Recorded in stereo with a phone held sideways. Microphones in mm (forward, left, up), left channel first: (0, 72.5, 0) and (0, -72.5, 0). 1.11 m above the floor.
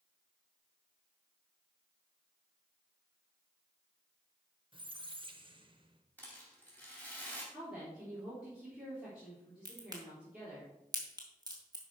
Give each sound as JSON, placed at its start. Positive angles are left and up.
{"t": 4.7, "sound": "a squeak", "side_deg": -35, "distance_m": 1.0}
{"t": 6.2, "sound": "a rattle", "side_deg": 10, "distance_m": 3.0}
{"t": 7.5, "sound": "a woman speaking", "side_deg": -5, "distance_m": 3.5}
{"t": 9.7, "sound": "a crack", "side_deg": -25, "distance_m": 2.5}